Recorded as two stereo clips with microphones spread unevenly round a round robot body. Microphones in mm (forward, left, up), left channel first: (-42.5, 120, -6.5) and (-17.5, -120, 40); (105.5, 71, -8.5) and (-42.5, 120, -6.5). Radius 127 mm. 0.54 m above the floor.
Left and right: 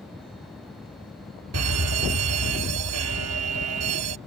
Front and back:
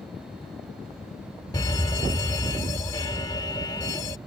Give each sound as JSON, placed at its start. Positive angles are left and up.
{"t": 1.5, "sound": "a fire alarm", "azimuth_deg": -80}